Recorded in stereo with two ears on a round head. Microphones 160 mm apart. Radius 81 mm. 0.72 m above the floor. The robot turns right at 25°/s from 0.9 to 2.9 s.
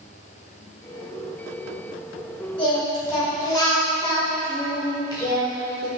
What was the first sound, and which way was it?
Singing, 30° left (ahead or behind).